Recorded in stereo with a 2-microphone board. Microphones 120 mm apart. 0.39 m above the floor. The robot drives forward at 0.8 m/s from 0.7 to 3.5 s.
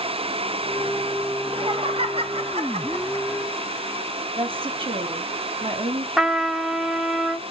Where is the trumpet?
Centre (ahead or behind), 1.1 m.